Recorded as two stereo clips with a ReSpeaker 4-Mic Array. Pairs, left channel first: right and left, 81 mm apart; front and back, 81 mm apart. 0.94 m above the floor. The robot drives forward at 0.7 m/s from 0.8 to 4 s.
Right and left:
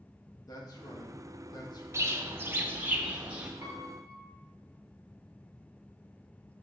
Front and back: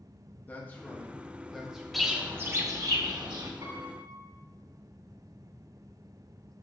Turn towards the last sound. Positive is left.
turn(degrees=170)